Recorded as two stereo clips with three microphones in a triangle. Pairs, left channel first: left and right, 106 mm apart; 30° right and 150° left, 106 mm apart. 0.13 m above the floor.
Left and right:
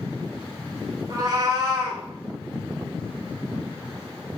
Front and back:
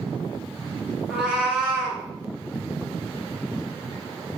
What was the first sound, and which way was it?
A cat meowing, 130° right.